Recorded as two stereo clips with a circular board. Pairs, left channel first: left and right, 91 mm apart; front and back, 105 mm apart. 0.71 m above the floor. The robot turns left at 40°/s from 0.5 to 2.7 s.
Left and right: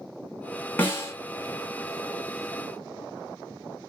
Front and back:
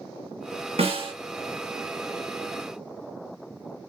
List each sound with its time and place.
0.8 s a snare drum: 160° left, 1.0 m; by 1.1 s 145° left, 1.0 m